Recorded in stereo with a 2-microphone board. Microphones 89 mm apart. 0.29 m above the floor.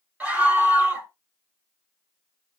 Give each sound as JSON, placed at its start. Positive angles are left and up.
{"t": 0.2, "sound": "a scream", "side_deg": -15, "distance_m": 1.4}